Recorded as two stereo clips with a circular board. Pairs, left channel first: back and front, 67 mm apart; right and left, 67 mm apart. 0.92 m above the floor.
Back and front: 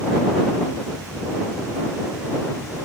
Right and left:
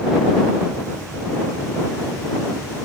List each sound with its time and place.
Only background noise.